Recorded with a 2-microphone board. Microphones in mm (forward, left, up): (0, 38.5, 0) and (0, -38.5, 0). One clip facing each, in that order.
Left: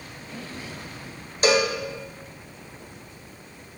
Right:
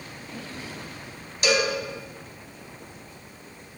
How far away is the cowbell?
About 0.8 m.